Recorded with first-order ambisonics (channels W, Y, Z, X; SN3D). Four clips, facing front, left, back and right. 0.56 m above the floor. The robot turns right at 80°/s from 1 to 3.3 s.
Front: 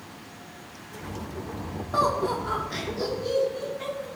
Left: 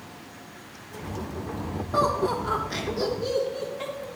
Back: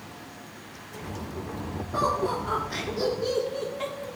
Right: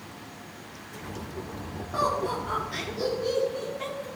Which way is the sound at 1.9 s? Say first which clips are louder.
Left 3 dB, front 2 dB; 25° left.